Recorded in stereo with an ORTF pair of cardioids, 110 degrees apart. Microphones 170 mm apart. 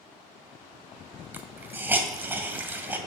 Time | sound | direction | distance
1.3 | a hiss | 15° right | 2 m